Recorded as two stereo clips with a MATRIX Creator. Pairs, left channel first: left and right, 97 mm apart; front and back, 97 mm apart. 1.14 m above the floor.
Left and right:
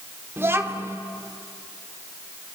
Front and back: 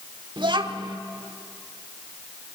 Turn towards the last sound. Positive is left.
turn(degrees=-155)